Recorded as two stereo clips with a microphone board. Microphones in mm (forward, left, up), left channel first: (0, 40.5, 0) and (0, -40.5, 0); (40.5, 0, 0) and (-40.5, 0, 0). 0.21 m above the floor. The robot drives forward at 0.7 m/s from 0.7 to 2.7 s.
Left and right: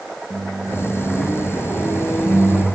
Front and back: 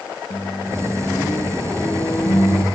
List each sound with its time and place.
0.3 s a microwave: 5° right, 3.5 m; by 2.7 s 10° right, 2 m